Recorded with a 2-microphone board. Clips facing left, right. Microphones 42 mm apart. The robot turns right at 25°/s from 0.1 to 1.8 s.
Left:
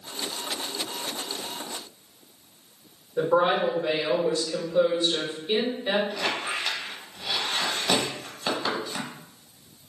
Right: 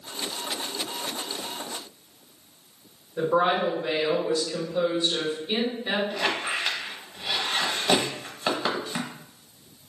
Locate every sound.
3.2 s a woman speaking: 25° left (ahead or behind), 1.8 m
6.1 s a squeak: 20° right (ahead or behind), 0.7 m